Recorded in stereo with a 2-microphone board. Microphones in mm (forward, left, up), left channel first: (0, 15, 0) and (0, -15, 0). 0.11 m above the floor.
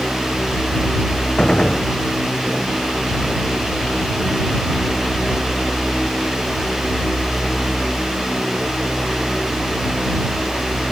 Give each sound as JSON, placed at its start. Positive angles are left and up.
{"t": 1.4, "sound": "a gunshot", "side_deg": 25}